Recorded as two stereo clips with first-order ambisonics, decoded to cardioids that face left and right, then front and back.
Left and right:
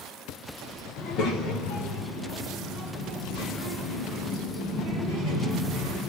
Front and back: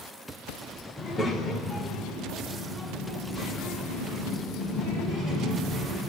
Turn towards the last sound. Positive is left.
turn(degrees=80)